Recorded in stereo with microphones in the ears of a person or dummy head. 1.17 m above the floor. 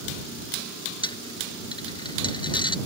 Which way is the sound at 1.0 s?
20° left (ahead or behind).